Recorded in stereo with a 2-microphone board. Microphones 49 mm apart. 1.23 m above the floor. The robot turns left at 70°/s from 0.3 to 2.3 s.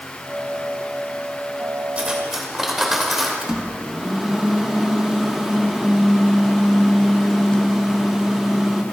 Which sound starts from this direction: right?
Cutlery clinking, at 2.0 s.